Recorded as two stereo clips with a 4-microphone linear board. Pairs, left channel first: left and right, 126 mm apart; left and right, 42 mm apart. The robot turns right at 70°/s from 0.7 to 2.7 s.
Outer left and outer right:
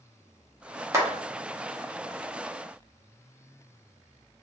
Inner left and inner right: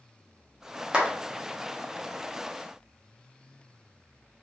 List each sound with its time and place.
0.9 s a clap: 20° right (ahead or behind), 0.8 m; by 1.1 s 25° right (ahead or behind), 0.8 m